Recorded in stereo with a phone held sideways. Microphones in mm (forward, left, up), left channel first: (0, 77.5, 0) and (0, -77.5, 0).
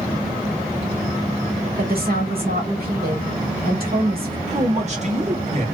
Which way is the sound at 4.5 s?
45° right (ahead or behind).